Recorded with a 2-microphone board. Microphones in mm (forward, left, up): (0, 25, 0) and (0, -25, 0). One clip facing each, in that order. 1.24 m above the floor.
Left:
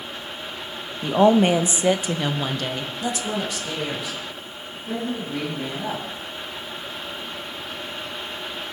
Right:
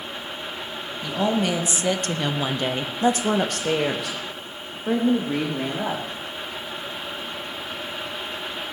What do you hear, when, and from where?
1.0 s a woman speaking: 45° left (ahead or behind), 1.5 m; by 6.0 s 80° right, 3.5 m